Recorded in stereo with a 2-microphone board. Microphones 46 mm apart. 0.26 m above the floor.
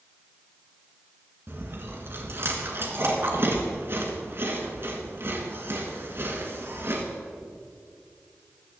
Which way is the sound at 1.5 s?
50° right (ahead or behind).